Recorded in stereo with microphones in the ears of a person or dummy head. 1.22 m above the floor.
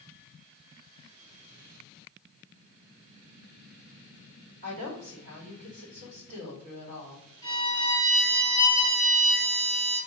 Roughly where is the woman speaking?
Right.